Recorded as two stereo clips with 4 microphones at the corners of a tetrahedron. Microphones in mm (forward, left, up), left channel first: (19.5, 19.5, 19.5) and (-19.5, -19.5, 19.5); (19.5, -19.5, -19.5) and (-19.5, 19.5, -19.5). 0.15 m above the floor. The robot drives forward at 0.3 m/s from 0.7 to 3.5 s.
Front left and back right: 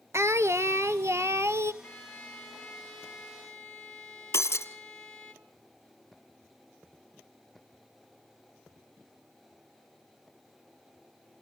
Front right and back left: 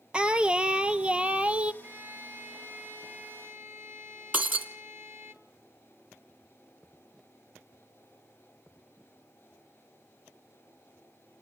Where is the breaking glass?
80° left, 2.0 m.